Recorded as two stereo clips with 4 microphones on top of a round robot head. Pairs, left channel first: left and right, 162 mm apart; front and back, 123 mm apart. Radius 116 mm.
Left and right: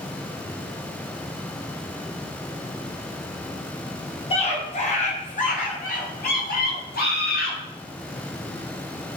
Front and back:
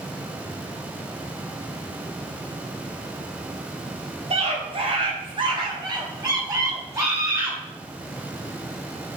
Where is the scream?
145° left, 5 m; by 7.6 s 115° left, 7.5 m.